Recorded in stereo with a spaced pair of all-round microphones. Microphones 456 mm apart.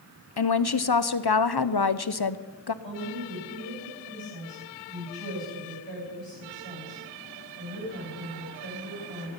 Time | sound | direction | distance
0.4 | a woman speaking | 55° left (ahead or behind) | 0.7 m
2.8 | a woman speaking | 70° right (ahead or behind) | 10 m